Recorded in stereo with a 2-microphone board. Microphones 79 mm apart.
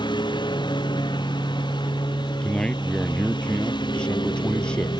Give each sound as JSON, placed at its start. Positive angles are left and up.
{"t": 0.0, "sound": "a lawn mower", "side_deg": 75}
{"t": 2.4, "sound": "a man speaking", "side_deg": 10}